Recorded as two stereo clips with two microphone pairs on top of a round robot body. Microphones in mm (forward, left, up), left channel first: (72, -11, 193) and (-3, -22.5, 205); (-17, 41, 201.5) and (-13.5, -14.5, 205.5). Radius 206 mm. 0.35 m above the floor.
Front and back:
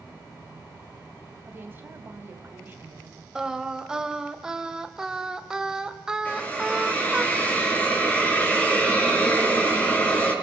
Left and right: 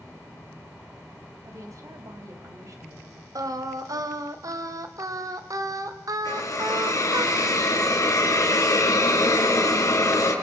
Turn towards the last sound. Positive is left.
turn(degrees=80)